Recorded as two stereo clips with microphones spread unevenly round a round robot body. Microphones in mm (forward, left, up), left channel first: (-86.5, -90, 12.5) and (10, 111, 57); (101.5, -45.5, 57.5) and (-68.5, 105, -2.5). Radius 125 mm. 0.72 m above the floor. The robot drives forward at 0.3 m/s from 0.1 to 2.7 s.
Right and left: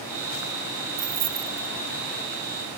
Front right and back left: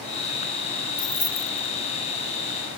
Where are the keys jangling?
30° left.